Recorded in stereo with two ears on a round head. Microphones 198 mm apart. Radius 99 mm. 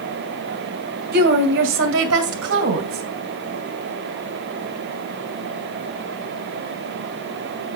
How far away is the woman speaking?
About 2.5 m.